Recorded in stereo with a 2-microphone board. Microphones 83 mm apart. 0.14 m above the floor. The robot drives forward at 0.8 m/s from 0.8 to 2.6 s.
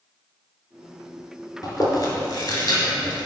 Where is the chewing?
45° left (ahead or behind), 1.9 m; by 3.3 s 40° left (ahead or behind), 2 m.